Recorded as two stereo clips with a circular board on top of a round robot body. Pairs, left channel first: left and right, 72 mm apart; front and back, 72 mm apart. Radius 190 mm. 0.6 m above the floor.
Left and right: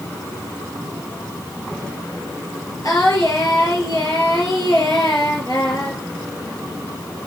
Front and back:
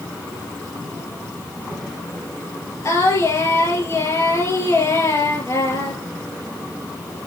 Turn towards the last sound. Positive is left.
turn(degrees=50)